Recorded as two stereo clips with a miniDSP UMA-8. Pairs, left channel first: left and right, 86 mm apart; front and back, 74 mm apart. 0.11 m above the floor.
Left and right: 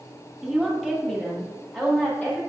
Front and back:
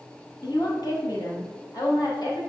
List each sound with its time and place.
0.4 s a woman speaking: straight ahead, 3 m; by 2.4 s 20° left, 3.5 m